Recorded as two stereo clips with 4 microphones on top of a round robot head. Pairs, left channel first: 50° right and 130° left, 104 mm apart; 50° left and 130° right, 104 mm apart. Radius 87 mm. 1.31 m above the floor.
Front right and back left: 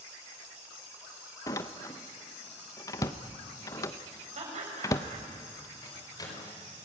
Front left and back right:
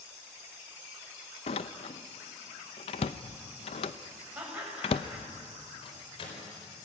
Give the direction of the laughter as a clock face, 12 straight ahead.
7 o'clock.